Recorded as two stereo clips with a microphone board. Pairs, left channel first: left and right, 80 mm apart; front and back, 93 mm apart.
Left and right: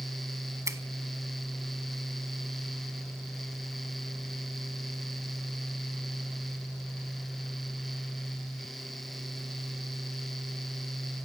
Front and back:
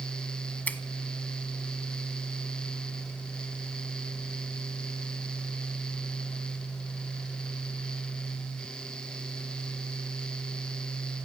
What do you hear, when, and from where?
0.7 s a finger snap: 65° right, 1.1 m